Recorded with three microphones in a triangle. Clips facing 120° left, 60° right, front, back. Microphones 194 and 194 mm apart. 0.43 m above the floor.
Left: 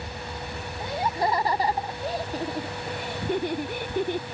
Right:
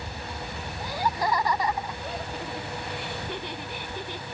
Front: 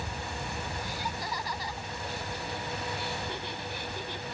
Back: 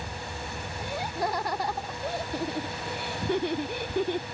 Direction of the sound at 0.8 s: 175° right.